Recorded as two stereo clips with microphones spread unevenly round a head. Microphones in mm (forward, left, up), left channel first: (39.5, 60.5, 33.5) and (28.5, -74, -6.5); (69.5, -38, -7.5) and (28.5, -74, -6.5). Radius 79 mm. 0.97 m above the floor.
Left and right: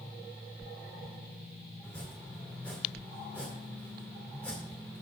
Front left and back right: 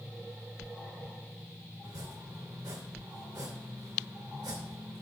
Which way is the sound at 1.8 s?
165° left.